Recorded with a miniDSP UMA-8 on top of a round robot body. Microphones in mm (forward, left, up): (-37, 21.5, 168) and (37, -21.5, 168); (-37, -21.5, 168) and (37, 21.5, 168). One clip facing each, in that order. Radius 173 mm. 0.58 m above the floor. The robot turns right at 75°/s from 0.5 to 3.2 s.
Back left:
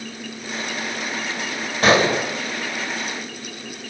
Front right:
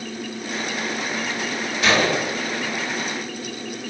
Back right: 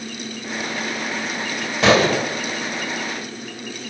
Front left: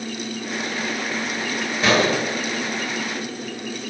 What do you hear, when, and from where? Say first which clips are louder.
1.8 s a gunshot: back left 3 dB, back right 3 dB; 165° right, 2 m; by 2.3 s 125° right, 2 m